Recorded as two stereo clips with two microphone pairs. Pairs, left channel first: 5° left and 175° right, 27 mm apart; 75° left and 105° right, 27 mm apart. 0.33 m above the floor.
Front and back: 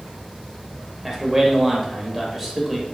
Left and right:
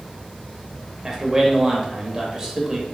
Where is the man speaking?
125° right, 0.9 m.